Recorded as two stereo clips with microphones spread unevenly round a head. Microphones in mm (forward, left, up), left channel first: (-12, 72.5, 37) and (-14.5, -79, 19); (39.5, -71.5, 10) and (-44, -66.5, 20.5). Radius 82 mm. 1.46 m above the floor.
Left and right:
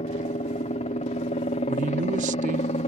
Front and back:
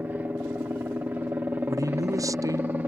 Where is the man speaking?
135° right.